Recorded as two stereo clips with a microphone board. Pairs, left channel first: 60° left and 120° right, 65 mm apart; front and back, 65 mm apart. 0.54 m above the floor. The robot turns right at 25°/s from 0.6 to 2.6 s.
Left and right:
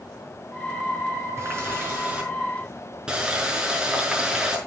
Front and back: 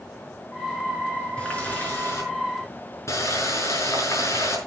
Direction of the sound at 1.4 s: 75° right.